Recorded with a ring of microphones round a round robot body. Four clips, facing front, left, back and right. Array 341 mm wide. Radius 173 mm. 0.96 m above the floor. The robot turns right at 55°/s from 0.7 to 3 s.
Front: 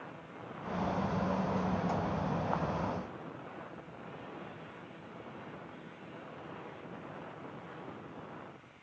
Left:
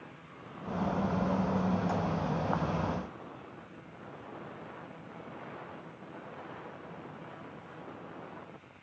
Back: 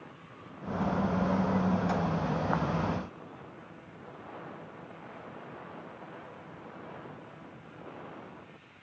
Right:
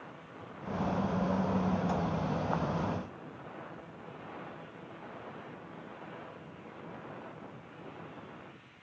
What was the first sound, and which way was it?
Only background noise.